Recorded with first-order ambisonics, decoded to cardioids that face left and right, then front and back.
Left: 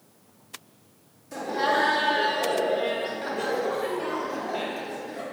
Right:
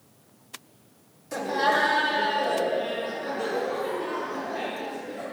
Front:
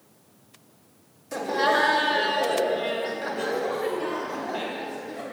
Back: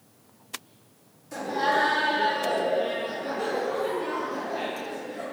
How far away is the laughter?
About 1.0 m.